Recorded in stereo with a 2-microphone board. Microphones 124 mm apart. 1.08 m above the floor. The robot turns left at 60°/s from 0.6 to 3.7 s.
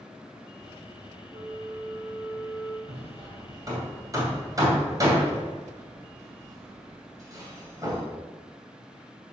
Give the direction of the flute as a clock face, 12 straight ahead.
4 o'clock.